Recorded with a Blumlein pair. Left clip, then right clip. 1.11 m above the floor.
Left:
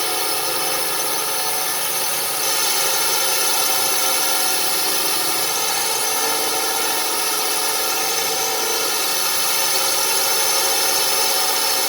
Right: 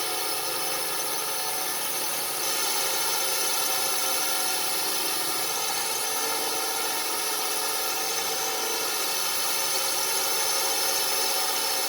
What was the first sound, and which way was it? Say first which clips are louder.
A drone: left 7 dB; 25° left.